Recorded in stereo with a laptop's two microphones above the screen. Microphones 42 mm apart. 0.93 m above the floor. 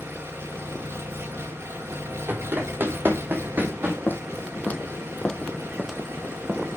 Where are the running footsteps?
50° right (ahead or behind), 1.5 m; by 4.0 s 40° right (ahead or behind), 2 m.